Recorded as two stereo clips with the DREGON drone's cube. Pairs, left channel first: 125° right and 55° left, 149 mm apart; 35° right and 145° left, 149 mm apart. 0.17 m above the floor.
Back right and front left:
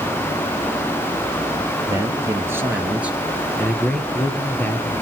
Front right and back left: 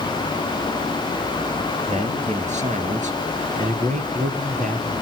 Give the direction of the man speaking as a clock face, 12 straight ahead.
8 o'clock.